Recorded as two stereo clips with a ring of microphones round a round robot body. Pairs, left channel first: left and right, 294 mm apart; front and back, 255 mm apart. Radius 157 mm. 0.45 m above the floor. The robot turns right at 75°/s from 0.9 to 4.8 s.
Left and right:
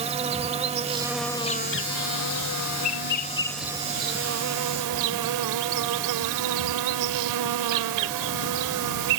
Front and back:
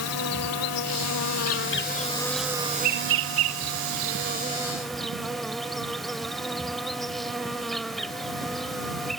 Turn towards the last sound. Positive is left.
turn(degrees=-90)